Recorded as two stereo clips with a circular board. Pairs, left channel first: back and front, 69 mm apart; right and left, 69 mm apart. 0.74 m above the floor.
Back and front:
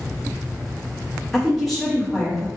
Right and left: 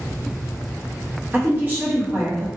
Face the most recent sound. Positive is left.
turn(degrees=95)